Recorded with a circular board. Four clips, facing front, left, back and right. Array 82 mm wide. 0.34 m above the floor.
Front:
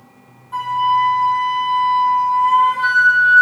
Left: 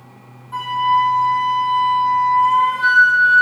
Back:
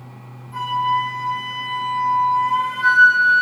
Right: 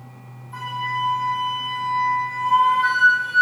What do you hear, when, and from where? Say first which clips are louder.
0.5 s a flute: left 10 dB, front 4 dB; 50° left, 5 m